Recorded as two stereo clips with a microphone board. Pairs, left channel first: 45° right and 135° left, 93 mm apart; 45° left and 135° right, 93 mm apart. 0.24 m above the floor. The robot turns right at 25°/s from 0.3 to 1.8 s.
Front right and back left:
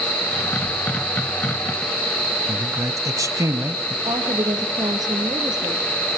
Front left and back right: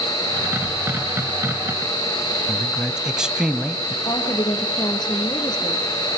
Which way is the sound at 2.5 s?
150° left.